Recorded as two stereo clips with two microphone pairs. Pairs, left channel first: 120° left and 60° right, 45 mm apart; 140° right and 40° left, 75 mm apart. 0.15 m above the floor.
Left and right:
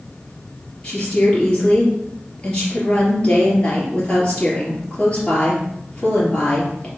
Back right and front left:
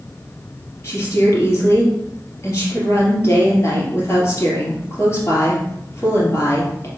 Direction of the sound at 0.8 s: 175° left.